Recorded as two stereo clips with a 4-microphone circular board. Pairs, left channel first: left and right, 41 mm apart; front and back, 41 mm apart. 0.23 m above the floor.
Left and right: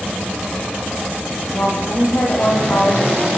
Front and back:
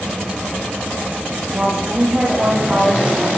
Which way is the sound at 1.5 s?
115° left.